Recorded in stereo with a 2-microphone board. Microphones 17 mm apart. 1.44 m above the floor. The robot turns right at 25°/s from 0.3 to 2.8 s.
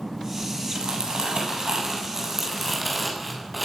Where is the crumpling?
65° right, 7.5 m; by 3.6 s 10° right, 7.5 m.